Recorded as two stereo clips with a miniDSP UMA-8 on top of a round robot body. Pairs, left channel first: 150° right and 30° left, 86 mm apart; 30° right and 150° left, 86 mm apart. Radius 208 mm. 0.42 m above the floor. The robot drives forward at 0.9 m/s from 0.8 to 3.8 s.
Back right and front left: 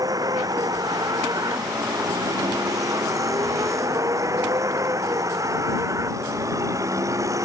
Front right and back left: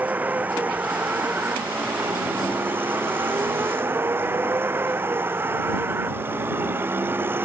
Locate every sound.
0.0 s a vehicle: 80° left; by 7.5 s 85° left